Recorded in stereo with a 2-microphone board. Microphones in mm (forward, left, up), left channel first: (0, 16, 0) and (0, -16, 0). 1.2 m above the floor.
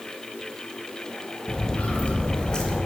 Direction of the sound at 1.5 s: 50° left (ahead or behind).